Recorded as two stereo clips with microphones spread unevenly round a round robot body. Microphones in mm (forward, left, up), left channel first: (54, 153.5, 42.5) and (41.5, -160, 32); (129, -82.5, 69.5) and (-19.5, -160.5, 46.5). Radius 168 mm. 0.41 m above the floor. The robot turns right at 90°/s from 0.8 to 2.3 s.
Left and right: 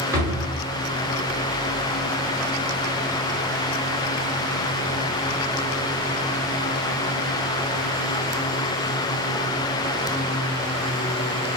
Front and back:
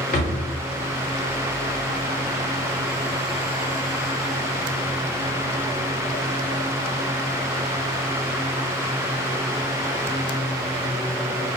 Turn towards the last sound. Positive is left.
turn(degrees=120)